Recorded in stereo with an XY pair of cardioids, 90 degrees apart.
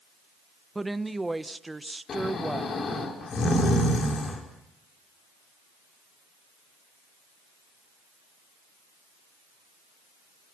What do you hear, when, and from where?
0.8 s a woman speaking: 15° right, 1.3 m
2.1 s snoring: 60° left, 5 m